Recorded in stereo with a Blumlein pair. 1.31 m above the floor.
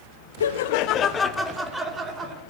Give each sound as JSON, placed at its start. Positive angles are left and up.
{"t": 0.4, "sound": "laughter", "azimuth_deg": 65, "distance_m": 1.1}